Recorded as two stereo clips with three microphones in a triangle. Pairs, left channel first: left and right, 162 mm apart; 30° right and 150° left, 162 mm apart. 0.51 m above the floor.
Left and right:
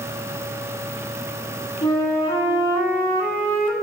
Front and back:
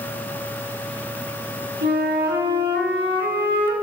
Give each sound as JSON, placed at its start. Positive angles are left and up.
{"t": 1.8, "sound": "a flute", "azimuth_deg": 145, "distance_m": 1.7}